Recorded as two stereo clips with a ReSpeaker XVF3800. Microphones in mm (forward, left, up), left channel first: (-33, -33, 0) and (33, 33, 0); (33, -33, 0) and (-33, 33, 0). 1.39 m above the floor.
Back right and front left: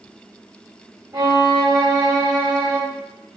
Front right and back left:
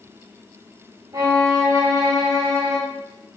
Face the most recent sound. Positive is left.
turn(degrees=85)